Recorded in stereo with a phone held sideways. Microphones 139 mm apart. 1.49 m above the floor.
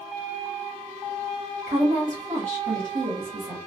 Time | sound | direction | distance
1.7 | a woman speaking | 70° right (ahead or behind) | 1.0 m